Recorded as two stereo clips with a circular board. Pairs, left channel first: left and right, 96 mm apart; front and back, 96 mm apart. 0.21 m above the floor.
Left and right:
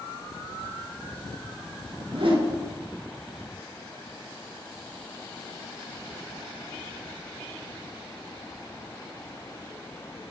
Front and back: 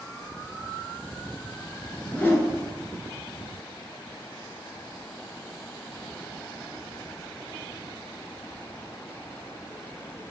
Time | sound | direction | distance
2.0 | a whoosh | 70° right | 1.5 m